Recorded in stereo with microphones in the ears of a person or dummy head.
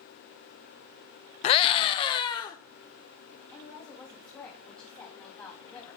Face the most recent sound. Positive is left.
turn(degrees=5)  # may be behind; listen again after turning